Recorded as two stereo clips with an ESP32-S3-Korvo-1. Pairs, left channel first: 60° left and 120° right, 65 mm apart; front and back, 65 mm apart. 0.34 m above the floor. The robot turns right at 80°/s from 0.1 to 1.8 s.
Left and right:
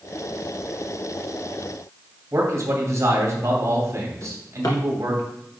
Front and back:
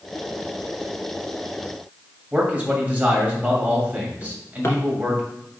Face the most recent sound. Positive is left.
turn(degrees=50)